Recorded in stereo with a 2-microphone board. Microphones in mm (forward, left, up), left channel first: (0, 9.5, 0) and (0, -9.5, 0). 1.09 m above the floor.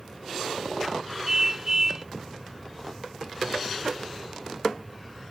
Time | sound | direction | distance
1.3 | a car horn | 20° right (ahead or behind) | ?